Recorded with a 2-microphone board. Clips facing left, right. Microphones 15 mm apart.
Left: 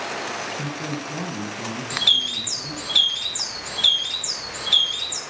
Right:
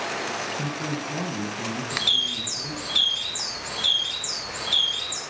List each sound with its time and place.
0.6 s a man speaking: centre (ahead or behind), 1.2 m
1.9 s a bird: 30° left (ahead or behind), 2 m